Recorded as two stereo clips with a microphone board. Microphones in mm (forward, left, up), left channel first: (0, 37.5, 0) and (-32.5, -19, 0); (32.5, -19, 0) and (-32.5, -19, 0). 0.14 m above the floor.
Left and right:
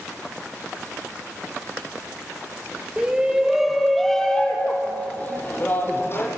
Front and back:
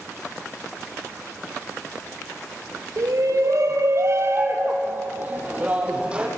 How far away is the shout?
About 4.5 m.